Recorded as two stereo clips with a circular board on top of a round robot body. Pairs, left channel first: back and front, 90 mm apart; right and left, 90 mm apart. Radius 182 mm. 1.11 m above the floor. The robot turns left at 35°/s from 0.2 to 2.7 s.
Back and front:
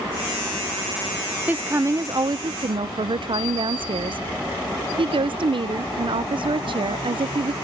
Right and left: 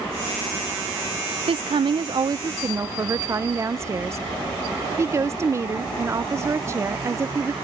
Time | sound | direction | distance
1.5 | a woman speaking | 75° left | ?